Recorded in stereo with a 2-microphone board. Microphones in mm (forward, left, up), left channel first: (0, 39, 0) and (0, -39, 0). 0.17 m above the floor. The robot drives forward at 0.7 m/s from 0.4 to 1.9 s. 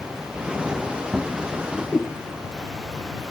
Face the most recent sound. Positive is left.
turn(degrees=25)  # may be behind; listen again after turning